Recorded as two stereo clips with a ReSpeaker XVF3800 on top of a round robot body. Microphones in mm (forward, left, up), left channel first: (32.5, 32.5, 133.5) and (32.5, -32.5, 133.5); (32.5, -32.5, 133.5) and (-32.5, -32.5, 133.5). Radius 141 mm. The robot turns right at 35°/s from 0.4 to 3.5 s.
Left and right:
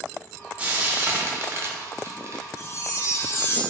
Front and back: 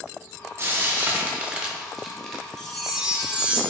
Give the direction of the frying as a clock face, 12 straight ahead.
5 o'clock.